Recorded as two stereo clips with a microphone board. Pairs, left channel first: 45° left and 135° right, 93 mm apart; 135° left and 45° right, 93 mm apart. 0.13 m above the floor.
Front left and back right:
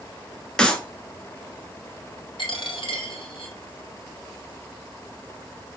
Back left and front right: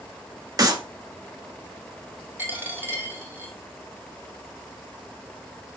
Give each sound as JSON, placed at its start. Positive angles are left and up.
{"t": 0.6, "sound": "a clap", "azimuth_deg": -30, "distance_m": 1.2}
{"t": 2.4, "sound": "a dropped coin", "azimuth_deg": 25, "distance_m": 1.8}